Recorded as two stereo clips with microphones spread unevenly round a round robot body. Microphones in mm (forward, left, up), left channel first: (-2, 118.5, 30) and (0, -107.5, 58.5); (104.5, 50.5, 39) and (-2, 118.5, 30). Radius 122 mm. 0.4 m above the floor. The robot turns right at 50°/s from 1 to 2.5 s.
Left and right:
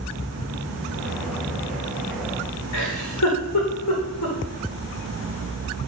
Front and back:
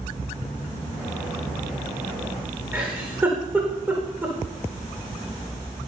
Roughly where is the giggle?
Left.